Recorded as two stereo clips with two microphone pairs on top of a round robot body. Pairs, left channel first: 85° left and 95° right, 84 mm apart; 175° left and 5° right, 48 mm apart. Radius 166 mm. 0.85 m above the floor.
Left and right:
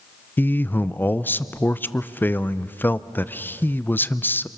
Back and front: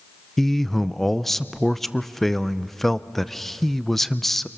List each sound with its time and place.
0.4 s a man speaking: 115° left, 0.7 m